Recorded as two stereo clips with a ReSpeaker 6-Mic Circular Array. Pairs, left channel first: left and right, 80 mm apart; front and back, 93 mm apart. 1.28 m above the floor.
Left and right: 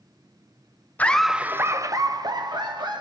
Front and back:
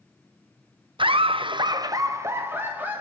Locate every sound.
1.0 s laughter: 160° left, 0.6 m; by 3.0 s 110° right, 1.8 m